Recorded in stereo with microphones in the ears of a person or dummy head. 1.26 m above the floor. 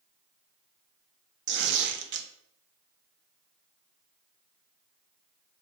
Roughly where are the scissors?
No scissors in this recording.